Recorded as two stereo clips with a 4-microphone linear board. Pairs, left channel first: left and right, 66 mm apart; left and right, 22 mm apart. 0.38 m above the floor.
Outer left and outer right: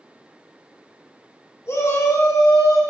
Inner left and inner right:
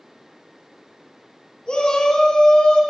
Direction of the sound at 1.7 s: 50° left (ahead or behind).